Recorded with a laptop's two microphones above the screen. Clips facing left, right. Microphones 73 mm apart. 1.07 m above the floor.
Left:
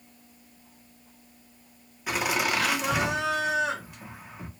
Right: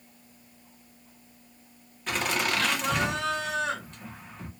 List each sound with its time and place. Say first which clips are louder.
2.1 s laughter: left 1 dB; 10° left (ahead or behind), 1.1 m